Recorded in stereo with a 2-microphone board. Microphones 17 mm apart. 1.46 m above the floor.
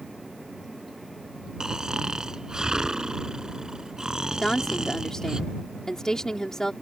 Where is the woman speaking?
35° left (ahead or behind).